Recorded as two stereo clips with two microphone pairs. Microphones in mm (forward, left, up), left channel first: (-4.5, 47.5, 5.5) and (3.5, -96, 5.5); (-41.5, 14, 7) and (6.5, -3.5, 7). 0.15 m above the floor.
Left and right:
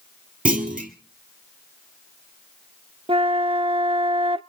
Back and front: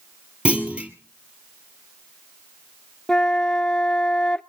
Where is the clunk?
90° right, 1.8 m.